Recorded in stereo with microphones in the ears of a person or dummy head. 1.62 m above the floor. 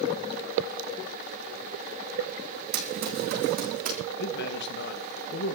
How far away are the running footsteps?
About 4.5 m.